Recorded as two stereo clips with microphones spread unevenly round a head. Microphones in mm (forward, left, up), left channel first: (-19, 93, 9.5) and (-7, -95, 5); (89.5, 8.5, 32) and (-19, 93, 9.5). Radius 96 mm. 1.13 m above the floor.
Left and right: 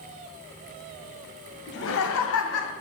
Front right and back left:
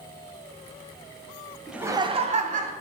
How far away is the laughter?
About 0.5 m.